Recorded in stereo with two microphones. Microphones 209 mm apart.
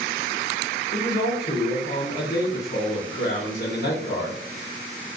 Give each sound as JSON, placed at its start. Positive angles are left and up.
{"t": 0.9, "sound": "a man speaking", "side_deg": 40, "distance_m": 2.0}